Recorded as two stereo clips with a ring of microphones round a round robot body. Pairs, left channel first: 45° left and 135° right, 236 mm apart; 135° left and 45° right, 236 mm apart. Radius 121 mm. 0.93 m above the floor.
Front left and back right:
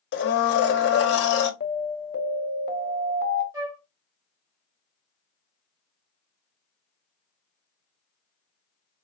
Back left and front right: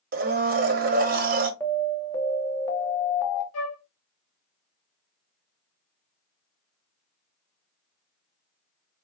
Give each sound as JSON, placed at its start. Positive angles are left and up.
{"t": 0.1, "sound": "a blender", "azimuth_deg": 5, "distance_m": 0.6}
{"t": 1.6, "sound": "an alarm", "azimuth_deg": 60, "distance_m": 1.0}
{"t": 3.5, "sound": "a flute", "azimuth_deg": 150, "distance_m": 1.9}